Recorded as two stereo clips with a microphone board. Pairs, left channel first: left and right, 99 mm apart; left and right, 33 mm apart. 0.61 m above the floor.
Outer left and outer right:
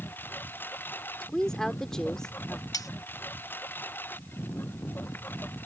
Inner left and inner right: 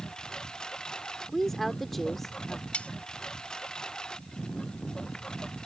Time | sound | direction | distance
0.0 | a lawn mower | 20° left (ahead or behind) | ?
1.2 | a woman speaking | 5° left (ahead or behind) | ?
2.7 | cutlery clinking | 40° left (ahead or behind) | ?